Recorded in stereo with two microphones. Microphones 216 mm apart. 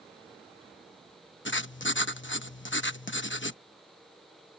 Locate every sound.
1.4 s writing: 60° left (ahead or behind)